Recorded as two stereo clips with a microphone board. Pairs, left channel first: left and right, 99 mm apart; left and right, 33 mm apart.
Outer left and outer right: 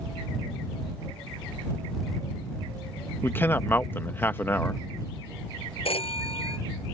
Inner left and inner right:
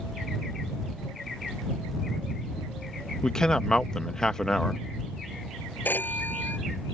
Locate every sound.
3.2 s a man speaking: 20° left (ahead or behind)
5.8 s a phone ringing: 65° left (ahead or behind)